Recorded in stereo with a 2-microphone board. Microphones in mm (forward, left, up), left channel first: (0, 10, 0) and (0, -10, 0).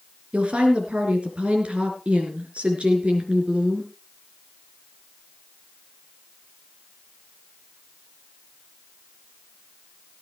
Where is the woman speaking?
65° right (ahead or behind), 4 m.